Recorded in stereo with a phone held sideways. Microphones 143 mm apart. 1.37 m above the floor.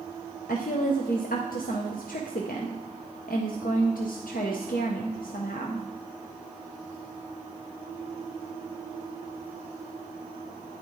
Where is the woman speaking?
80° left, 0.6 m.